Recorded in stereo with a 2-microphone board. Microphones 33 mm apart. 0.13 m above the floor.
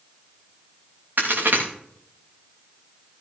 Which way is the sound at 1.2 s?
65° right (ahead or behind).